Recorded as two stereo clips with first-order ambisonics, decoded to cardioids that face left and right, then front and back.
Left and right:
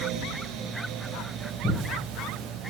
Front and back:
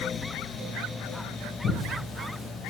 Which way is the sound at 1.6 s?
30° left.